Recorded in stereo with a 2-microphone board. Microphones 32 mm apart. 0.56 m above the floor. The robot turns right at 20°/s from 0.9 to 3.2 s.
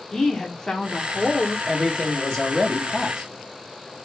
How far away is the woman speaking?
About 0.9 m.